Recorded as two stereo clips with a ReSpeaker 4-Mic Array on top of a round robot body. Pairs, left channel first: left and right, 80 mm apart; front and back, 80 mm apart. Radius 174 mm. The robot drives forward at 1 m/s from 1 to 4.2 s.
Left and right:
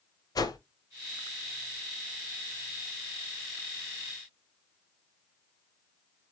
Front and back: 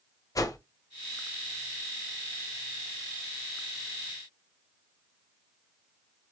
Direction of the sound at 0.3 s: 50° left.